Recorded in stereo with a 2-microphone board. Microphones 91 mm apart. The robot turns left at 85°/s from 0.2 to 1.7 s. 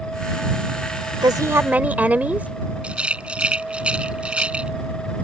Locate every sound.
1.2 s a woman speaking: 120° right; by 2.5 s 165° right
2.8 s a rattle: 15° right (ahead or behind)